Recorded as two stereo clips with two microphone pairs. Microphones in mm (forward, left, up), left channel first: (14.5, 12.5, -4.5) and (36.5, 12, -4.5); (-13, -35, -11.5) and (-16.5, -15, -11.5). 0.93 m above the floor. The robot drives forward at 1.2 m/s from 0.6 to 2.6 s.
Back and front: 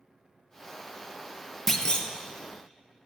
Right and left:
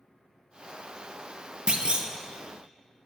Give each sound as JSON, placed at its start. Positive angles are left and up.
{"t": 1.7, "sound": "a clunk", "azimuth_deg": 95, "distance_m": 0.5}